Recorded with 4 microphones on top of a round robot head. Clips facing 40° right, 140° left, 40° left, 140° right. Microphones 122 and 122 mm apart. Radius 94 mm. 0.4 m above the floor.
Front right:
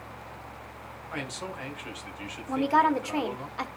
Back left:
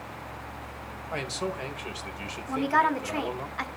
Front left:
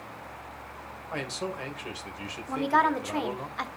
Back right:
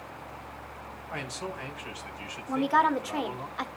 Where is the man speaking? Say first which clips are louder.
Back left 5 dB, front left 3 dB; 95° left, 2.5 m.